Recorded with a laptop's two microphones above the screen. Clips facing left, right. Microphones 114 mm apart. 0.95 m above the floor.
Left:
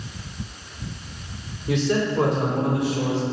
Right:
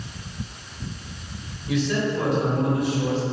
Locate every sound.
1.7 s a man speaking: 65° left (ahead or behind), 3.5 m; by 3.2 s 80° left, 4 m